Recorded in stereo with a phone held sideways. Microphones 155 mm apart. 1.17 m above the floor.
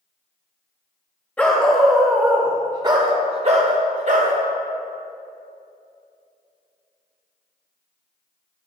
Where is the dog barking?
10° left (ahead or behind), 1.3 m; by 4.3 s 55° right (ahead or behind), 1.4 m.